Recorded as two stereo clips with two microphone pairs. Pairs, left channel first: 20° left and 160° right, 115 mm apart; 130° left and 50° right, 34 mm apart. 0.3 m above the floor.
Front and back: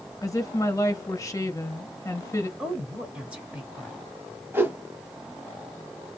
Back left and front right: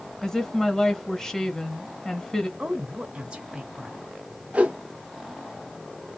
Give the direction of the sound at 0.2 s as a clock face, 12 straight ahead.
10 o'clock.